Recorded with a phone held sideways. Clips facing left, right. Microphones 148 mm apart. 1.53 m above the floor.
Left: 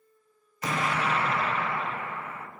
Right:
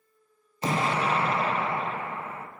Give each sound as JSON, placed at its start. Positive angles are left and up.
{"t": 0.6, "sound": "an explosion", "side_deg": -25, "distance_m": 1.0}